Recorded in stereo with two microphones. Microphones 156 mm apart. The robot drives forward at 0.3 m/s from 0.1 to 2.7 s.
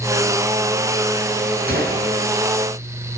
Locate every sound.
1.7 s a gunshot: 75° right (ahead or behind), 4 m